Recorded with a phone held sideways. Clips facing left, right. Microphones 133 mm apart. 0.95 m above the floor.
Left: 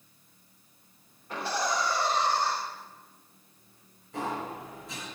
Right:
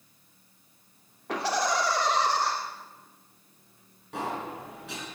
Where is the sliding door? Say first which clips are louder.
Even; 75° right (ahead or behind), 6 m.